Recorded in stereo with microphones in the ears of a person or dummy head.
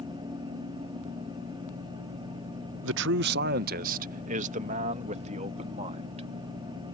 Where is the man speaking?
75° right (ahead or behind); by 6.3 s 35° right (ahead or behind).